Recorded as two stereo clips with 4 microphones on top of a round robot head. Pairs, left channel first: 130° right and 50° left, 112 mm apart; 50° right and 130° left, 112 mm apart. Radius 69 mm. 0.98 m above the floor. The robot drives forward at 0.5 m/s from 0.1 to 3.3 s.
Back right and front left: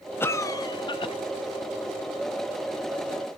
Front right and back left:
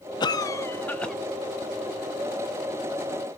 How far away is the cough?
About 0.6 m.